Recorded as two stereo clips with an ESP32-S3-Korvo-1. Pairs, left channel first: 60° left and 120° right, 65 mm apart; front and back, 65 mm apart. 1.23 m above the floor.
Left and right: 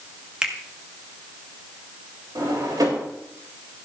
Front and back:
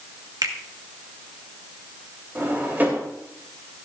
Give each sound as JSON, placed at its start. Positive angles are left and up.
{"t": 0.4, "sound": "a finger snap", "azimuth_deg": 165, "distance_m": 1.4}
{"t": 2.4, "sound": "a drawer", "azimuth_deg": -120, "distance_m": 3.5}